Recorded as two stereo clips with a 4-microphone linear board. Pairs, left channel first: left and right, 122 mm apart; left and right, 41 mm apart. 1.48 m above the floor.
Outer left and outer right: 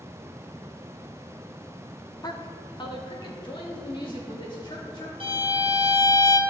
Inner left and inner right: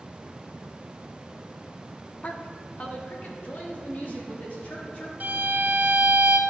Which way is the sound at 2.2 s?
35° left (ahead or behind).